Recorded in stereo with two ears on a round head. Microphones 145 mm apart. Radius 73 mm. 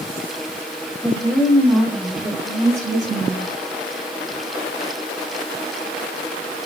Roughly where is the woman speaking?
Centre.